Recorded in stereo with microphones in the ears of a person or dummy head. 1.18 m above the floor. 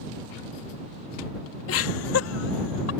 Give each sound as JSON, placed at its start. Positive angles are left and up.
{"t": 1.7, "sound": "laughter", "side_deg": 75}